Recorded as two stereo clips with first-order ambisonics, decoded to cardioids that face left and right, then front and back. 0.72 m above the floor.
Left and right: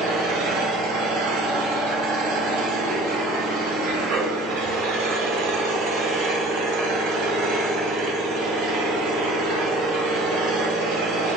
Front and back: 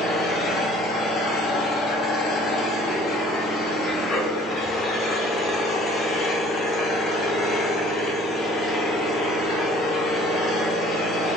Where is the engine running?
65° right, 0.8 m.